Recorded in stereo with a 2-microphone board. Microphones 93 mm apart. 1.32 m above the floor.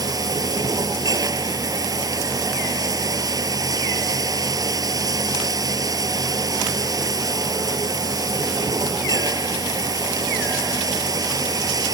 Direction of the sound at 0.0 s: 40° right (ahead or behind).